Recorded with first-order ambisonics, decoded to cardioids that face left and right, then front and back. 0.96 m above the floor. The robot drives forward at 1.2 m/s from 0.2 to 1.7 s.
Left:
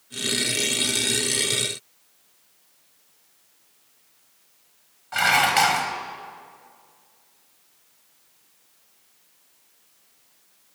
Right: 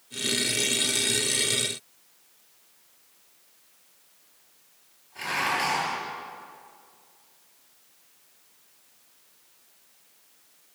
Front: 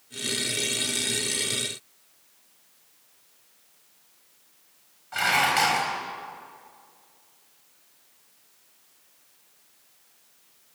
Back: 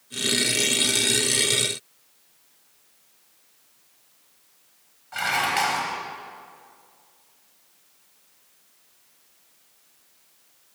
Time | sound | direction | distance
5.1 | dishes clattering | 85° left | 4 m